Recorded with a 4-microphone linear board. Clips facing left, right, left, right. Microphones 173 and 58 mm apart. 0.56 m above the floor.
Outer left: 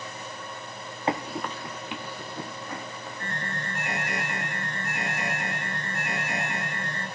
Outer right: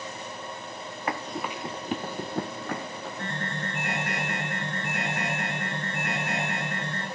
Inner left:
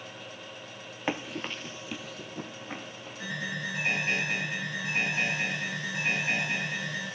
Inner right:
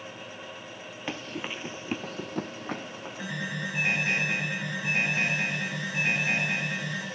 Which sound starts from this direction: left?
Running footsteps, at 1.1 s.